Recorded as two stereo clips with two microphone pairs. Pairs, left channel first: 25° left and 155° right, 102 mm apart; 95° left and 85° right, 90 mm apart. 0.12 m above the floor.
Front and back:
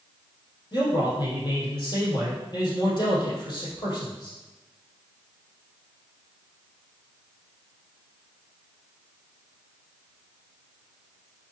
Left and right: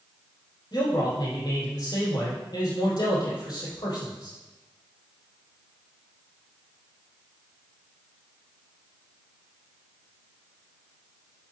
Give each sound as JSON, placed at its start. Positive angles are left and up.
{"t": 0.7, "sound": "a man speaking", "azimuth_deg": 65, "distance_m": 4.0}